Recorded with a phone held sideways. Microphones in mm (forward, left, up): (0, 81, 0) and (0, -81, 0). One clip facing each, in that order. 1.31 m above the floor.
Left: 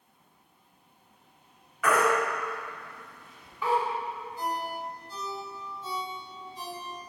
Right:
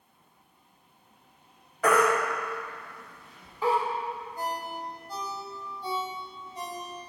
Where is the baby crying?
35° right (ahead or behind), 1.7 m.